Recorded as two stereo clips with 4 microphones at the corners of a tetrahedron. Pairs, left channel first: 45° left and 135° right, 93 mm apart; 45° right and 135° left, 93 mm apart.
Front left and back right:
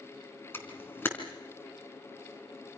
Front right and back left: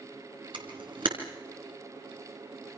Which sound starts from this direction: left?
A camera shutter, at 0.5 s.